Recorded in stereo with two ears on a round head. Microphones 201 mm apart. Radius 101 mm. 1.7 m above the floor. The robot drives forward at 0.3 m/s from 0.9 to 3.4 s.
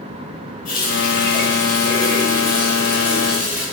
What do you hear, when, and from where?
0.7 s a running tap: 40° left (ahead or behind), 1.7 m; by 3.6 s 30° left (ahead or behind), 2.5 m